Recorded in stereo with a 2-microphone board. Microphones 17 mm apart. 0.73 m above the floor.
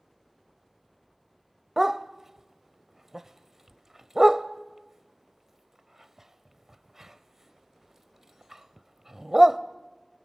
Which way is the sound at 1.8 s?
15° right (ahead or behind).